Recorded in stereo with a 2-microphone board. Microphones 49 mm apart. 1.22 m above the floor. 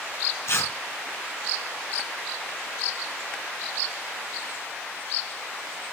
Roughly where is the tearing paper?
Left.